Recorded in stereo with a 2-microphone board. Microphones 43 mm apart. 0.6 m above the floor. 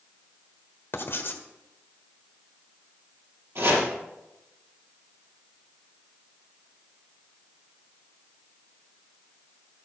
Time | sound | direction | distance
0.9 | writing | 55° left (ahead or behind) | 1.3 m
3.5 | chopping | 60° right (ahead or behind) | 5 m